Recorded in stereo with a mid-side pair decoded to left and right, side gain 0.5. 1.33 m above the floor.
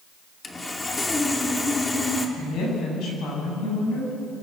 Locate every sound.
0.4 s sawing: 25° left, 2.5 m
2.4 s a woman speaking: 65° left, 8 m